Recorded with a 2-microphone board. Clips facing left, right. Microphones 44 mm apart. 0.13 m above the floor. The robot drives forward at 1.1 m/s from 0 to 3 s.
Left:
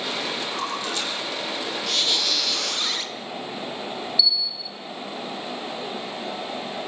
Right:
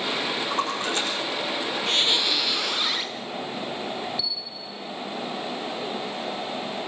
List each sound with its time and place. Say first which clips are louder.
0.5 s a splash: right 2 dB; 35° right (ahead or behind), 10 m; by 1.1 s 40° right (ahead or behind), 9.5 m
1.9 s a squeak: right 2 dB; 35° right (ahead or behind), 0.5 m; by 3.1 s 10° right (ahead or behind), 1.7 m
4.2 s a bell: left 8 dB; 45° right (ahead or behind), 1.7 m